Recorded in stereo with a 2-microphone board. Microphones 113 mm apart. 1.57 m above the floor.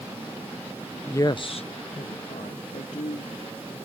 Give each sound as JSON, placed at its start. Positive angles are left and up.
{"t": 1.1, "sound": "a woman speaking", "side_deg": 20}